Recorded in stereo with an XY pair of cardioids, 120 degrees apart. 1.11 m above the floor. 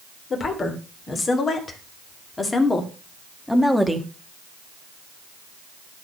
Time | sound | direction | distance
0.3 | a woman speaking | 35° left | 3.5 m